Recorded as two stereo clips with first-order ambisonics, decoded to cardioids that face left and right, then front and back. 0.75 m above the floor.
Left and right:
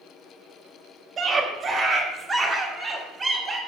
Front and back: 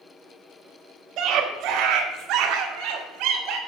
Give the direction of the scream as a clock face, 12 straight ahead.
5 o'clock.